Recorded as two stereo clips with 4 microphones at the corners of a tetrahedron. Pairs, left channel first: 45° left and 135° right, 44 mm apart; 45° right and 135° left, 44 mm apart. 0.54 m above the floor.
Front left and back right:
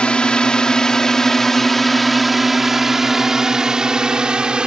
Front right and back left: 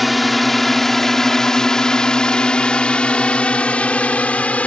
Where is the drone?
50° left; by 4.7 s 80° right.